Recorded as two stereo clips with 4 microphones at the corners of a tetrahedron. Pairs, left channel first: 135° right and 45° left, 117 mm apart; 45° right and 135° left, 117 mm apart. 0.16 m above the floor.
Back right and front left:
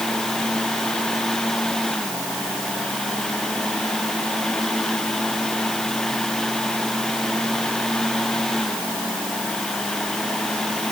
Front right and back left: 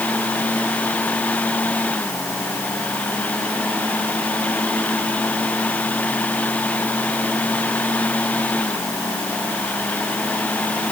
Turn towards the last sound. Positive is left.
No sound to turn to.